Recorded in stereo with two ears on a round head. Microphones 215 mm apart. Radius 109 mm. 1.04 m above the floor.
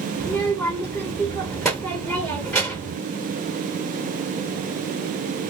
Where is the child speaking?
5° left (ahead or behind), 0.9 m.